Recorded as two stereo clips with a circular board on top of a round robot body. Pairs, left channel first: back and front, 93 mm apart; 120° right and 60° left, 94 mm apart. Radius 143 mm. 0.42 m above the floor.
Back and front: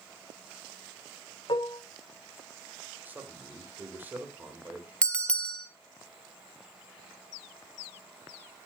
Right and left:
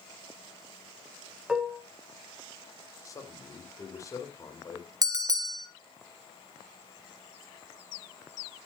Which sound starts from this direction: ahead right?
A man speaking, at 3.0 s.